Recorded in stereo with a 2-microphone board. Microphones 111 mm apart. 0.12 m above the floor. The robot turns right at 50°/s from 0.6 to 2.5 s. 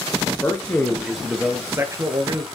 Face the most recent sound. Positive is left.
turn(degrees=-110)